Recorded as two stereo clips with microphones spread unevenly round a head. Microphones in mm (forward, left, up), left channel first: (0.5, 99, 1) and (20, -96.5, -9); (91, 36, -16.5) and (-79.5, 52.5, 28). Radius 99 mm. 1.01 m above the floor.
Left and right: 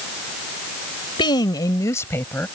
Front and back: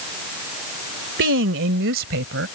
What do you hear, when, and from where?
1.2 s a woman speaking: 165° left; by 2.5 s 175° left